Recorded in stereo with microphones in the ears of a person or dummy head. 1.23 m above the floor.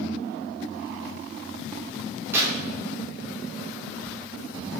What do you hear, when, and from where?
2.3 s tearing paper: 20° right (ahead or behind), 4.5 m